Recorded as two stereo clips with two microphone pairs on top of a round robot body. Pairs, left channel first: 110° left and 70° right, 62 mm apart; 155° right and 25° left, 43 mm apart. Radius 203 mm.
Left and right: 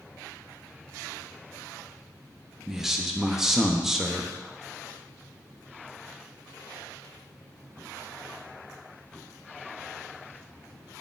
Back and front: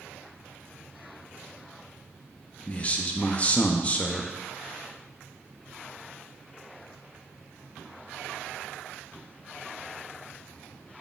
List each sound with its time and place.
2.7 s a man speaking: 150° right, 0.6 m